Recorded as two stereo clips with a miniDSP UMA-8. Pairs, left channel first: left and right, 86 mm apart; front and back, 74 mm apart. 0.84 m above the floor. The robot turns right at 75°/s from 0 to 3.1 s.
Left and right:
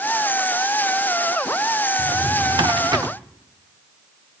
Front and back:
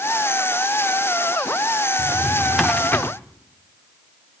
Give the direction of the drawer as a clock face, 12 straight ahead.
4 o'clock.